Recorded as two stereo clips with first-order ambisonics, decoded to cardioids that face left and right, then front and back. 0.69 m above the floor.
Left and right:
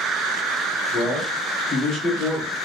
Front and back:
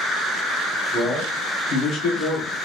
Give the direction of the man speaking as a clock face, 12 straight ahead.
9 o'clock.